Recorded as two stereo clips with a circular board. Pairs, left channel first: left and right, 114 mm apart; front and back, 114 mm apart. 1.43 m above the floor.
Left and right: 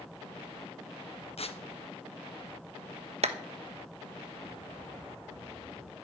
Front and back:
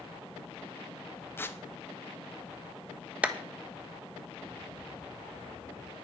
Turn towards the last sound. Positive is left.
turn(degrees=-105)